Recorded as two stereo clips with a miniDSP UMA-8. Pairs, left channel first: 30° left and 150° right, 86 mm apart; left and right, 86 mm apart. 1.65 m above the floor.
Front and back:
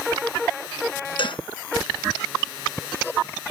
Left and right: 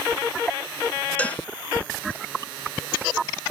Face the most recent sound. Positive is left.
turn(degrees=15)